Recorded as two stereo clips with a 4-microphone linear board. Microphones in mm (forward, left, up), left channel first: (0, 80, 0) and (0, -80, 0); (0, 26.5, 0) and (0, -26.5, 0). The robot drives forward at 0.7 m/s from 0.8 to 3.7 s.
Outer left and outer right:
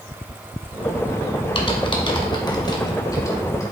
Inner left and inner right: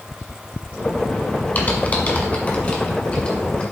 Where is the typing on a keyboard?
35° left (ahead or behind), 1.3 m; by 3.6 s 20° left (ahead or behind), 2 m.